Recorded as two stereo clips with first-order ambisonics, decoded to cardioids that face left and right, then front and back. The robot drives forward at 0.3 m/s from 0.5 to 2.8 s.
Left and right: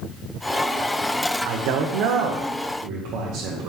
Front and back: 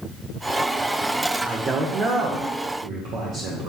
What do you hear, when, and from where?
1.4 s a man speaking: 95° right, 0.5 m; by 3.7 s 135° right, 0.7 m